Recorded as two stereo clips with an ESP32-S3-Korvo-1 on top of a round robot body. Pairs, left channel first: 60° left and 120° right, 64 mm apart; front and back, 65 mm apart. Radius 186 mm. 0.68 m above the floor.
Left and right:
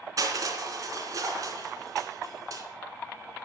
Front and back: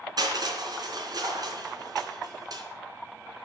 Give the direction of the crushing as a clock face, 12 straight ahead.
5 o'clock.